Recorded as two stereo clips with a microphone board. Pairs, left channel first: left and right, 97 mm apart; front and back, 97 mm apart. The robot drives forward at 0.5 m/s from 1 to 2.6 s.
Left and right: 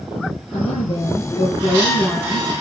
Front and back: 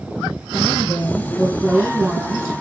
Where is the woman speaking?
90° left, 7 m; by 2.5 s 95° left, 7 m.